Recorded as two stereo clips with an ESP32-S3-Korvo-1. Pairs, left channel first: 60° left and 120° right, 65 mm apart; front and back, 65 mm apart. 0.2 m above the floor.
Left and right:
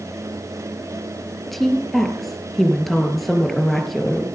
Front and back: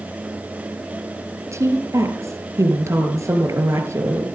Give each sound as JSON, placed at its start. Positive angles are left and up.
{"t": 1.5, "sound": "a woman speaking", "azimuth_deg": 150, "distance_m": 4.5}